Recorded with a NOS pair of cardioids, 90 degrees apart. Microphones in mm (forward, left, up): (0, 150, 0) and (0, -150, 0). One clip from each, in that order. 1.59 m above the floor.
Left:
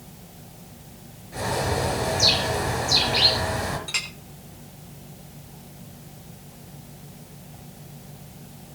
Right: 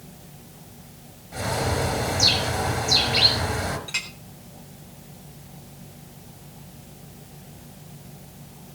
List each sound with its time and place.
1.3 s a bird: 10° right, 5.5 m
3.9 s a clink: 20° left, 3.5 m